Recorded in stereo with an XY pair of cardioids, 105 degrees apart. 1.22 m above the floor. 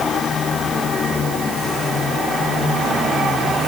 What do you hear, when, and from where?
Only background noise.